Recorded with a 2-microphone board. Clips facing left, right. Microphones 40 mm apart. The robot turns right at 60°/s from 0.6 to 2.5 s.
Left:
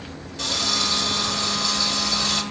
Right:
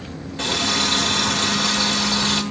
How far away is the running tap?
About 1.6 m.